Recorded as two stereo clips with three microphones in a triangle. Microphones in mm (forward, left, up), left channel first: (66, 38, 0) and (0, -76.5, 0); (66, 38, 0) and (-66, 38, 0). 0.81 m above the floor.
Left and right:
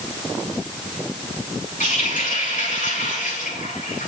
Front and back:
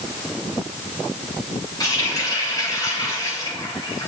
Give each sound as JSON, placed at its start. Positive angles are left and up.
{"t": 1.8, "sound": "a running tap", "azimuth_deg": 60, "distance_m": 3.5}